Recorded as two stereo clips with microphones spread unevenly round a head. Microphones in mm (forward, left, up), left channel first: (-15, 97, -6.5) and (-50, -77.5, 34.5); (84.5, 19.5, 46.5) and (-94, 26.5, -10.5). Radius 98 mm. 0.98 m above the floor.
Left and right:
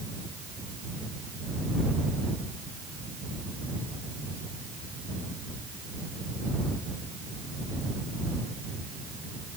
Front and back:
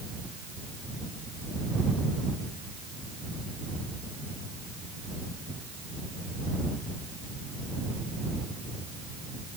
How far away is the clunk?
I don't hear a clunk.